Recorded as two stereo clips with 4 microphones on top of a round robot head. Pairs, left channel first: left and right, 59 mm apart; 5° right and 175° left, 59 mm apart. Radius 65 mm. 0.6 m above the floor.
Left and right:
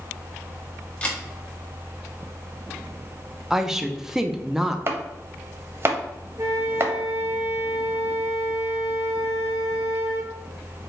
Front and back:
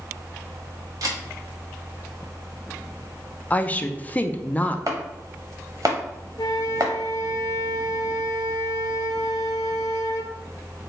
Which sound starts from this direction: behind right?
Chopping, at 4.9 s.